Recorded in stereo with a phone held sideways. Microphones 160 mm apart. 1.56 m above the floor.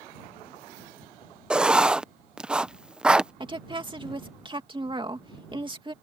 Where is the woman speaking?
30° right (ahead or behind).